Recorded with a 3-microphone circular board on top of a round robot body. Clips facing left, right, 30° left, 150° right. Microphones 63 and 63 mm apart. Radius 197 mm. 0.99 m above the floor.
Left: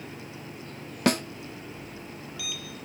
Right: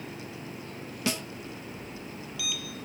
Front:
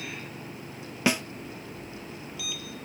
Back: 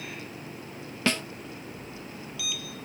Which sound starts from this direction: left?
A snare drum, at 1.1 s.